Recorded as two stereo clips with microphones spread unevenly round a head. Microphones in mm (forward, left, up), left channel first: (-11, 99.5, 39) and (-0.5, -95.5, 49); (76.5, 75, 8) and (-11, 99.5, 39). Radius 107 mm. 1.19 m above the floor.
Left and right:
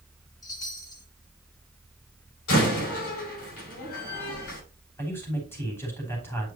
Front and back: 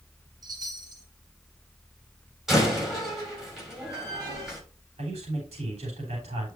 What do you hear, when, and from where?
0.4 s a chime: 165° left, 1.9 m
2.5 s a door slam: 80° left, 6 m
5.0 s a man speaking: 170° left, 3.5 m